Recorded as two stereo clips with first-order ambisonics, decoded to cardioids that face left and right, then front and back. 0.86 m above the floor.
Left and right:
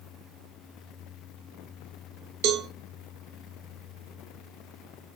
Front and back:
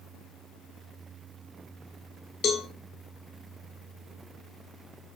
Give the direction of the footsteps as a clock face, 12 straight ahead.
No footsteps in this recording.